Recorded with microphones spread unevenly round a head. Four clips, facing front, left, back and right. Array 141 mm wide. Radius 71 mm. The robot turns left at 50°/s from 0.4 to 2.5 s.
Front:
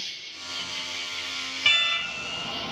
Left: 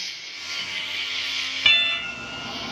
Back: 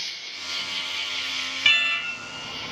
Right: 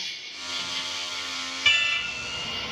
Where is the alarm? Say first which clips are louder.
Left 2 dB, back 1 dB; 95° left, 1.0 m; by 2.7 s 55° left, 1.0 m.